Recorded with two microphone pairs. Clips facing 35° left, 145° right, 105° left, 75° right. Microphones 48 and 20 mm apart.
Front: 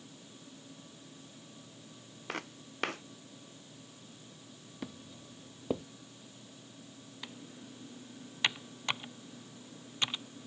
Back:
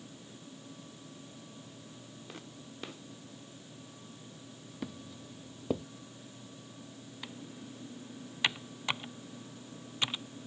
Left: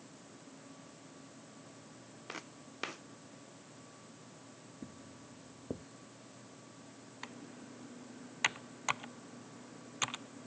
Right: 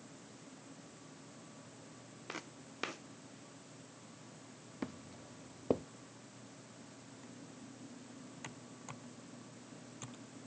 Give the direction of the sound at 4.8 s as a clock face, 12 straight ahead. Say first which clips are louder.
Back 2 dB, right 6 dB; 2 o'clock.